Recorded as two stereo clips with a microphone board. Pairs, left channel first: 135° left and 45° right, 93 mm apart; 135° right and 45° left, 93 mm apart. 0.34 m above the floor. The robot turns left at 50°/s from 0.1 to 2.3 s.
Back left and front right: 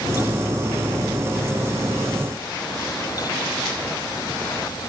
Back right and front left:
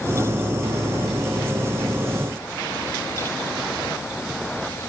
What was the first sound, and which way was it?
Only background noise.